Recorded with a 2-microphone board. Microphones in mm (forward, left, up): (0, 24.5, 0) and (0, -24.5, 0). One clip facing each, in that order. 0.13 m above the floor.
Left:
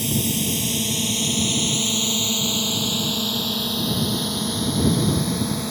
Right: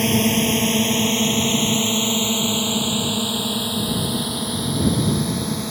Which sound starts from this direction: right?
A drone, at 0.0 s.